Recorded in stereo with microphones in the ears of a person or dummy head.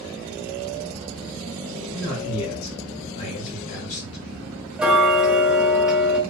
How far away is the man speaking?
About 1.6 m.